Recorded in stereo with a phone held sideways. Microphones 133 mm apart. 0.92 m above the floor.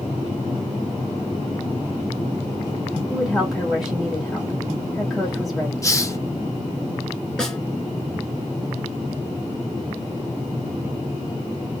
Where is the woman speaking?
Centre (ahead or behind), 1.8 m.